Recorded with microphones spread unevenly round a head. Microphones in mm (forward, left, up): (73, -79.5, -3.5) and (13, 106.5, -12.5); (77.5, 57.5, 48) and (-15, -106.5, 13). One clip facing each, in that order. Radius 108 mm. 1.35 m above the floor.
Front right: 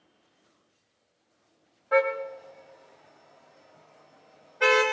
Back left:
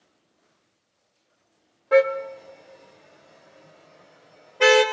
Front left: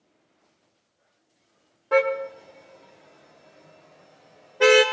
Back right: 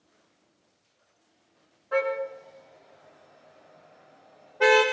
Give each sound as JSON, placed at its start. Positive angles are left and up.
{"t": 1.9, "sound": "a car horn", "azimuth_deg": 75, "distance_m": 2.0}